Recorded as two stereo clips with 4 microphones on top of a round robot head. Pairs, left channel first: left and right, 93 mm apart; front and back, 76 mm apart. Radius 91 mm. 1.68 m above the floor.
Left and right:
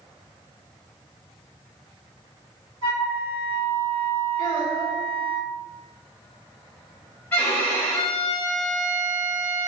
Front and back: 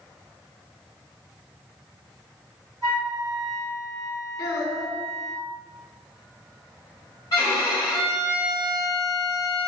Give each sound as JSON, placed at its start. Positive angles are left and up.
{"t": 2.8, "sound": "a flute", "azimuth_deg": -125, "distance_m": 1.6}
{"t": 4.4, "sound": "a child speaking", "azimuth_deg": -20, "distance_m": 1.9}
{"t": 7.3, "sound": "a violin", "azimuth_deg": 15, "distance_m": 1.2}